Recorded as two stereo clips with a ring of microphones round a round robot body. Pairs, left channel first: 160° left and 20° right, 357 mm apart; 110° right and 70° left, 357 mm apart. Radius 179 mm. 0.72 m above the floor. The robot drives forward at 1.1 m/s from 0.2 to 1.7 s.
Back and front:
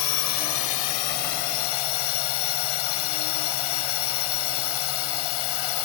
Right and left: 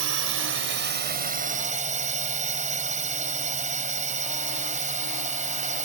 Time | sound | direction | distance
0.0 | a drone | 120° left | ?